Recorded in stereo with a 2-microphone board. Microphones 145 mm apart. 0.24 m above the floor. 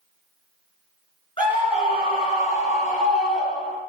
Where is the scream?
35° left (ahead or behind), 3 m; by 3.8 s 55° left (ahead or behind), 5.5 m.